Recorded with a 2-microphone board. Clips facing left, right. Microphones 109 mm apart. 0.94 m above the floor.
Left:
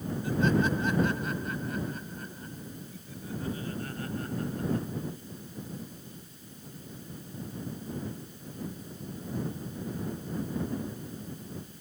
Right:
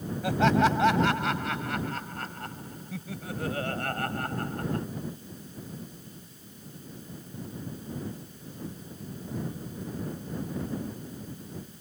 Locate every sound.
0.2 s laughter: 85° right; by 4.8 s 60° right (ahead or behind)